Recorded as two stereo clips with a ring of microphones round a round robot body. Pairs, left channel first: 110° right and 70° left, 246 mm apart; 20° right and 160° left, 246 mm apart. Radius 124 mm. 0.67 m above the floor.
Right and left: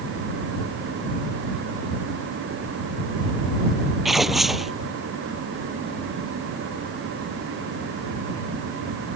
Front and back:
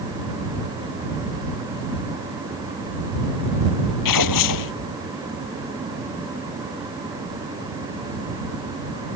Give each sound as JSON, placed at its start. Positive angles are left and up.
{"t": 4.0, "sound": "tearing paper", "azimuth_deg": -20}